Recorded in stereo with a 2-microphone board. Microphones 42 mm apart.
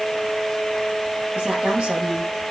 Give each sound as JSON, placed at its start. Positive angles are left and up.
{"t": 1.4, "sound": "a woman speaking", "side_deg": -30, "distance_m": 7.0}